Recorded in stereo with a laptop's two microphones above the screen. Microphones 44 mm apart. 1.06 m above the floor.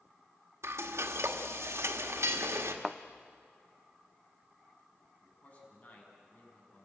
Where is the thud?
5° right (ahead or behind), 0.5 m.